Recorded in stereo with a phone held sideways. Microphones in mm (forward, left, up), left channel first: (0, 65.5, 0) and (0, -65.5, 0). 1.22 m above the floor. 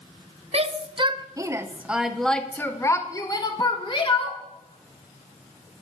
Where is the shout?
50° right (ahead or behind), 1.1 m; by 4.4 s 45° left (ahead or behind), 1.8 m.